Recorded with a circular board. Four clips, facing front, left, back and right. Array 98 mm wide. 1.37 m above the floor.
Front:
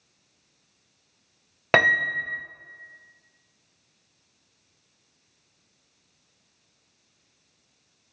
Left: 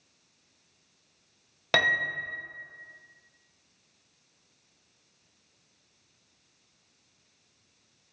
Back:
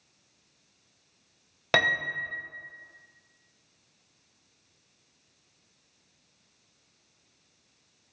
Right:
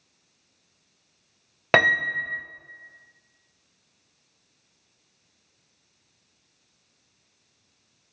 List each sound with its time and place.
1.7 s a piano: 55° right, 0.8 m